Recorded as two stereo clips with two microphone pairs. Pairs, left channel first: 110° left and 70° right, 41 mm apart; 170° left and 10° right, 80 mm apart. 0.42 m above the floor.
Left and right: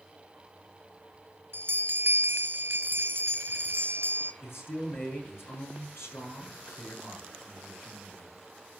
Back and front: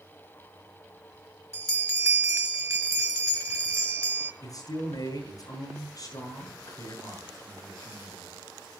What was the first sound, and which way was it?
A bell, 60° right.